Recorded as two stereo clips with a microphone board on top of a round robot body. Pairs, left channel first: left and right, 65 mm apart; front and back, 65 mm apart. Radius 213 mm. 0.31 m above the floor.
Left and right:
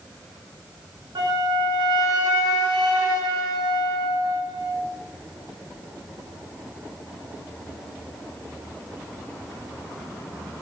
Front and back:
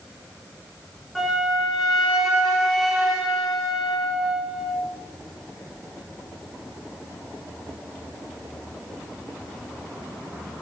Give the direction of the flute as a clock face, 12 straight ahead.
3 o'clock.